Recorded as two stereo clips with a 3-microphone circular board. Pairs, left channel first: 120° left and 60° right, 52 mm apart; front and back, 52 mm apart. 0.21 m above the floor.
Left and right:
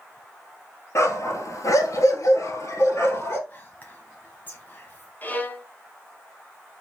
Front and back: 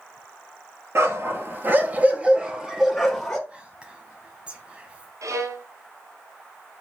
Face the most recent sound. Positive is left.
turn(degrees=180)